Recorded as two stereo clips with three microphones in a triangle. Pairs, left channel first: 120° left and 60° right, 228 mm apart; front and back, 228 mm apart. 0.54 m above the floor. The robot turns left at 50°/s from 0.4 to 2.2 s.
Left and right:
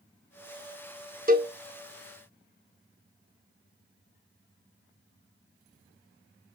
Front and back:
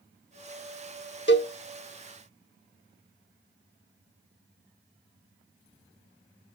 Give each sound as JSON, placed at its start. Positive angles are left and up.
{"t": 1.3, "sound": "a cowbell", "azimuth_deg": -15, "distance_m": 0.9}